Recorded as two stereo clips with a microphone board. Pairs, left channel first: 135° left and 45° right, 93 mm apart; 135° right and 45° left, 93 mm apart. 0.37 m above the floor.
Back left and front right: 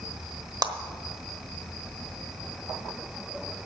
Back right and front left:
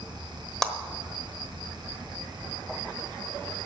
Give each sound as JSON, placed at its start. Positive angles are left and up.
{"t": 0.6, "sound": "a clap", "azimuth_deg": -50, "distance_m": 1.1}